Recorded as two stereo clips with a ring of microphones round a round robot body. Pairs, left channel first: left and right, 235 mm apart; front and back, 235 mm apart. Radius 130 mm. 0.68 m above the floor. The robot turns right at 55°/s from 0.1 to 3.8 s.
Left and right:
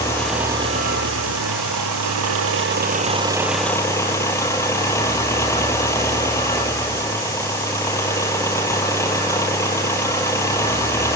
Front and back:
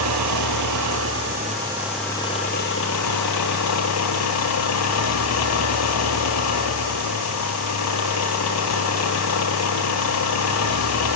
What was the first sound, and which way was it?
An engine running, 170° left.